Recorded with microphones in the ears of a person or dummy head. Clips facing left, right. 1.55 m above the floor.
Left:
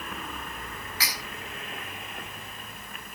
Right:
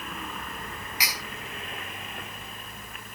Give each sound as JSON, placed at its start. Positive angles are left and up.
{"t": 1.0, "sound": "cutlery clinking", "side_deg": -15, "distance_m": 5.5}